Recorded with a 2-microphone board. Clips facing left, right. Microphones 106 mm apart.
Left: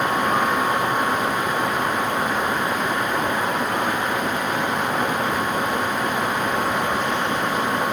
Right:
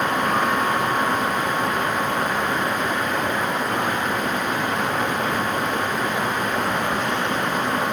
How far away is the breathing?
No breathing in this recording.